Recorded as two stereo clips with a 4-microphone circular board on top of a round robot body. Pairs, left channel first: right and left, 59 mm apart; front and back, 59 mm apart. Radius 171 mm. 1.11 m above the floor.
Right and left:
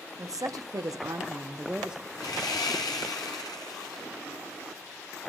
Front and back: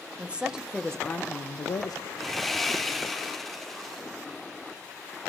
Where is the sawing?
85° right, 0.8 m.